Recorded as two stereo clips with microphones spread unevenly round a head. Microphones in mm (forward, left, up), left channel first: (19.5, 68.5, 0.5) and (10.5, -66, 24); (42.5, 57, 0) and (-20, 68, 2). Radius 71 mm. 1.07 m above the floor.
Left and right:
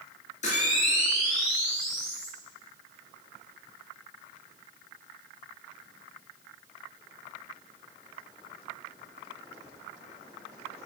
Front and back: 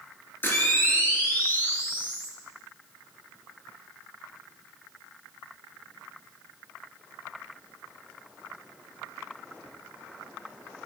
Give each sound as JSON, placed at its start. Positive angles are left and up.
{"t": 0.4, "sound": "a camera shutter", "azimuth_deg": 45, "distance_m": 2.5}